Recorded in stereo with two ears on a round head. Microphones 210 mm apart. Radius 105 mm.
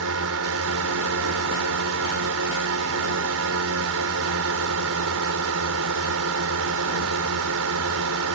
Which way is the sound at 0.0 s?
70° right (ahead or behind).